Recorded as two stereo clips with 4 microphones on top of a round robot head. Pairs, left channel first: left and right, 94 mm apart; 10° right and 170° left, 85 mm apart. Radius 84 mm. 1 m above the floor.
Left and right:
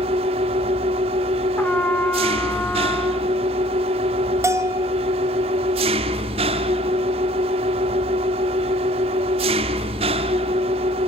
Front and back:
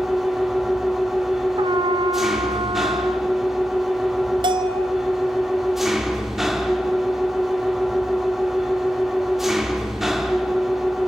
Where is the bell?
150° right, 1.3 m.